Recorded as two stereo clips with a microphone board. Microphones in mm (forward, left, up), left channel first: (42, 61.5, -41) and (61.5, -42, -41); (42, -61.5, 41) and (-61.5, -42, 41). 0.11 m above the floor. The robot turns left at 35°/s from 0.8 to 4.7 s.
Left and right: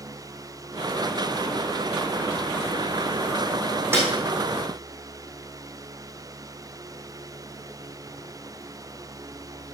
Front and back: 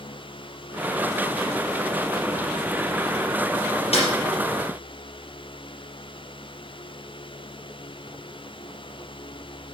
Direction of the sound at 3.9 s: 10° right.